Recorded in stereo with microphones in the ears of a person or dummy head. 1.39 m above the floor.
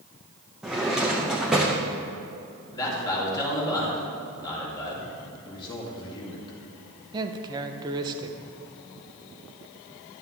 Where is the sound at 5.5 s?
25° left (ahead or behind), 1.9 m.